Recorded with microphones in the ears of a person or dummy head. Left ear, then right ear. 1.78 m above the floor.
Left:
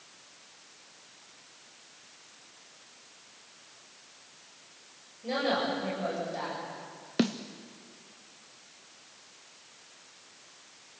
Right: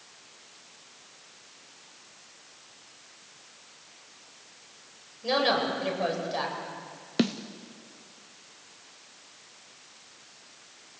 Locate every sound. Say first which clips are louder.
5.2 s a woman speaking: right 4 dB; 50° right (ahead or behind), 8.5 m
7.2 s a snare drum: right 2 dB; centre (ahead or behind), 0.6 m